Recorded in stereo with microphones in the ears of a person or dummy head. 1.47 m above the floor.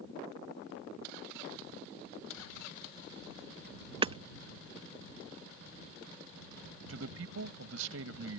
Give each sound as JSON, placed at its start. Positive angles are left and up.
{"t": 4.0, "sound": "hammering", "side_deg": -25}
{"t": 6.9, "sound": "a man speaking", "side_deg": -65}